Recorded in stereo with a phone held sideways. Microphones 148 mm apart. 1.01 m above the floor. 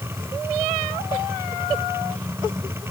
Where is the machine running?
15° right (ahead or behind).